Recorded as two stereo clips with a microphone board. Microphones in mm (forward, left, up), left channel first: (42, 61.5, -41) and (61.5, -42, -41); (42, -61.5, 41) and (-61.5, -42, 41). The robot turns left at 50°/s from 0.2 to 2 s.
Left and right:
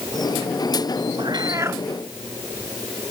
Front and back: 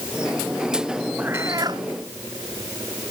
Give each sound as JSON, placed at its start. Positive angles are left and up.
{"t": 1.2, "sound": "a cat meowing", "azimuth_deg": -115}